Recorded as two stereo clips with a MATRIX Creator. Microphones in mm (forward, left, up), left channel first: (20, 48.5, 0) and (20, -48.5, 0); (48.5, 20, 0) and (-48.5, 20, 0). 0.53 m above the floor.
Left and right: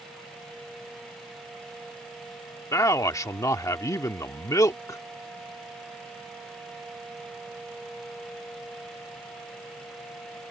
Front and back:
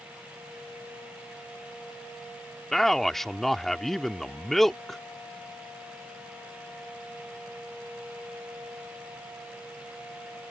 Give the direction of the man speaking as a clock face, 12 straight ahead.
9 o'clock.